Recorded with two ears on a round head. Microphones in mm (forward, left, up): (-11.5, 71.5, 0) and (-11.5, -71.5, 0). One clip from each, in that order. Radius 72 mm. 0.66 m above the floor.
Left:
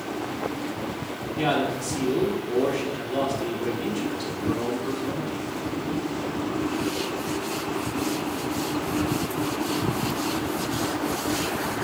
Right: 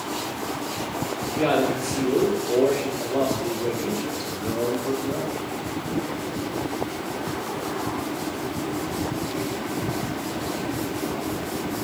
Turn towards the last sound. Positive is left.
turn(degrees=30)  # may be behind; listen again after turning